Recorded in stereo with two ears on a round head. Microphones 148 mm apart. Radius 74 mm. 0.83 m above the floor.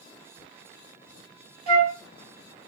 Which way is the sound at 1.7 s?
60° right (ahead or behind).